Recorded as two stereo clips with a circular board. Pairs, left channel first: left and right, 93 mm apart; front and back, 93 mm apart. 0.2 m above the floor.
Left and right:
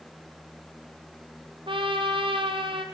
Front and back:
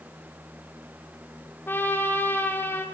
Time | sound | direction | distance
1.7 | a trumpet | 65° right | 2.5 m